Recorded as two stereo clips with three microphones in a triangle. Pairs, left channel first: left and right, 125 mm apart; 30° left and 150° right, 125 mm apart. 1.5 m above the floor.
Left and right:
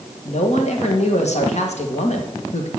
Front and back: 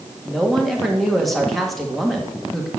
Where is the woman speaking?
120° left, 1.7 m.